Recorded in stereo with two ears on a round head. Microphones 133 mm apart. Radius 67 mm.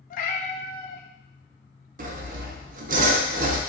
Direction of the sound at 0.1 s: 55° left (ahead or behind).